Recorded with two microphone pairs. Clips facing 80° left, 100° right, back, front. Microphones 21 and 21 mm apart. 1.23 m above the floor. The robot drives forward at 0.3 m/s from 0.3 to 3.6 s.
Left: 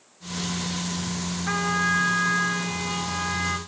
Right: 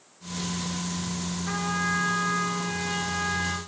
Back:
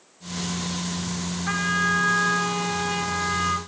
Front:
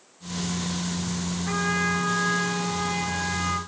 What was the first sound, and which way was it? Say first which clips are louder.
A trumpet: left 4 dB, back 3 dB; 140° left.